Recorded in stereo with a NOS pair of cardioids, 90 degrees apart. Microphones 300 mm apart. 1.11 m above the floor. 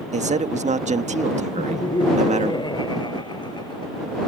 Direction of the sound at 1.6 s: 15° left.